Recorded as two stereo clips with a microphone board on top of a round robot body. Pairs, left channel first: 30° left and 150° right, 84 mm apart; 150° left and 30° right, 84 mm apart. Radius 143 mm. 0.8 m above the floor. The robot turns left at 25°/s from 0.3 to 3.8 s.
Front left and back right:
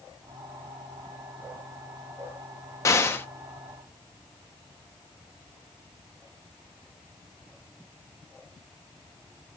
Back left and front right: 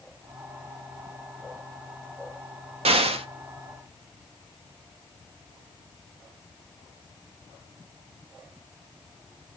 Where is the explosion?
30° right, 0.5 m; by 3.3 s 40° right, 0.5 m.